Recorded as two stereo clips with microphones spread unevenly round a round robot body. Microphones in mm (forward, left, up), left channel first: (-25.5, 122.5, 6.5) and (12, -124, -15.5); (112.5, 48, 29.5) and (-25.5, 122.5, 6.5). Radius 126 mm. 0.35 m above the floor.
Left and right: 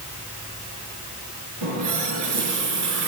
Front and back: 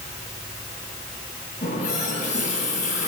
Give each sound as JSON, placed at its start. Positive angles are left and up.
{"t": 1.6, "sound": "a running tap", "azimuth_deg": -80, "distance_m": 4.0}